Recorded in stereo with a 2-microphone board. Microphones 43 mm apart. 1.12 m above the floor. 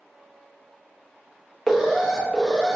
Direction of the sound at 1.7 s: 5° right (ahead or behind).